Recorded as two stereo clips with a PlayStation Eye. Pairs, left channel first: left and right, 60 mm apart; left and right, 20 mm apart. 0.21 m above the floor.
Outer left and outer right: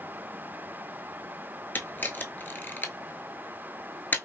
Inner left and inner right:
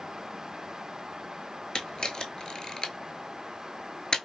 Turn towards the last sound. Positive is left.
turn(degrees=35)  # may be behind; listen again after turning